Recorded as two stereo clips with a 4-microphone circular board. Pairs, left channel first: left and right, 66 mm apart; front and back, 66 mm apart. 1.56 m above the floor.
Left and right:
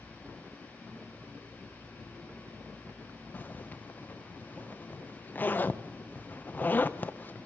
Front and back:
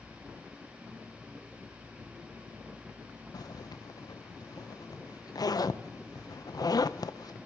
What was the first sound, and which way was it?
A zipper, 25° left.